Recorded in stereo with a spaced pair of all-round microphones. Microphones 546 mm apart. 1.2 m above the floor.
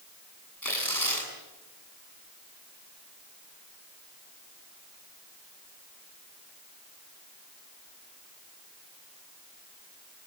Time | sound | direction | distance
0.6 | tearing paper | 35° left (ahead or behind) | 8 m